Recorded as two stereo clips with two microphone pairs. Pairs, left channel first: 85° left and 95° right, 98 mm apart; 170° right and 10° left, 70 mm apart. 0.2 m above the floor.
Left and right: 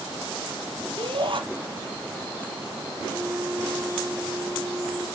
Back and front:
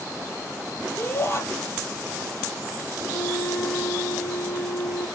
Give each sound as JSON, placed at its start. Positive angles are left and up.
{"t": 1.0, "sound": "a shout", "azimuth_deg": -120, "distance_m": 4.0}
{"t": 3.1, "sound": "a flute", "azimuth_deg": -175, "distance_m": 6.5}